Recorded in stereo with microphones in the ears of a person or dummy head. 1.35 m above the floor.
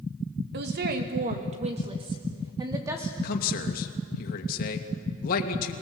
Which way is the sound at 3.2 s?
50° left (ahead or behind).